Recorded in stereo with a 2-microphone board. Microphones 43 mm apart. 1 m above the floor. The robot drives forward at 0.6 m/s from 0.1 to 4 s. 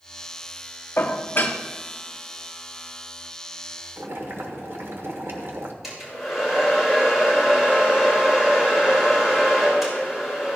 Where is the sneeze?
I don't hear a sneeze.